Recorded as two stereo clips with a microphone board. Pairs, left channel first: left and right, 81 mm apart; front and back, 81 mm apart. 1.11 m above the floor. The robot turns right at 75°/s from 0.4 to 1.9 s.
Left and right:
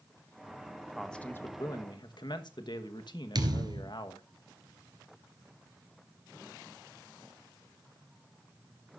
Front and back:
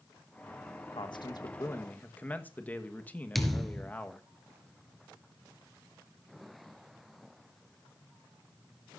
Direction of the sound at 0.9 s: 5° right.